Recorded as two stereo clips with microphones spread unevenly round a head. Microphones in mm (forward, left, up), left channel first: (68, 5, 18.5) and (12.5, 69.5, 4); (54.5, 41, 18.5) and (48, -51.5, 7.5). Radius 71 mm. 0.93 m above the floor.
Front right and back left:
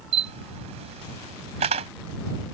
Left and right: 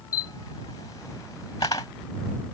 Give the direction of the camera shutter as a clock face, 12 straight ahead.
7 o'clock.